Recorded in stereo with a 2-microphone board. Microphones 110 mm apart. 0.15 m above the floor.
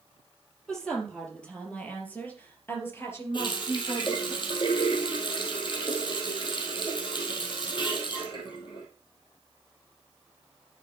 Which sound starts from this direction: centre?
A woman speaking, at 0.7 s.